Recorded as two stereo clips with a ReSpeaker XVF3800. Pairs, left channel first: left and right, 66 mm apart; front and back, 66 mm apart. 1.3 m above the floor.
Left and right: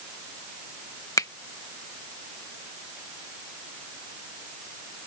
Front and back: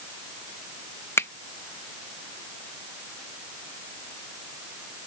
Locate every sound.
1.2 s a finger snap: 50° left